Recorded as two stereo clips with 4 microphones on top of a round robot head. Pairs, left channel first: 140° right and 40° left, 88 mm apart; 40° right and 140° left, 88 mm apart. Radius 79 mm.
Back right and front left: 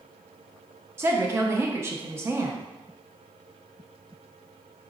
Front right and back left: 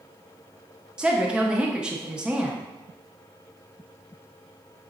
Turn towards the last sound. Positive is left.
turn(degrees=70)